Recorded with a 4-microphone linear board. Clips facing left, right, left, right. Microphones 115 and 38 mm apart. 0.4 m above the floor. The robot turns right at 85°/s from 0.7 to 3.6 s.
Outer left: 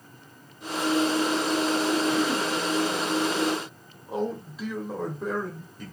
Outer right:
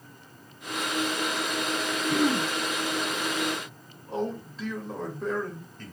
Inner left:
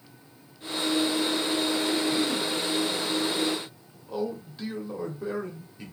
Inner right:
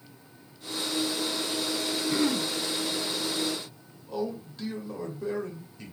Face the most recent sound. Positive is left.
turn(degrees=10)  # may be behind; listen again after turning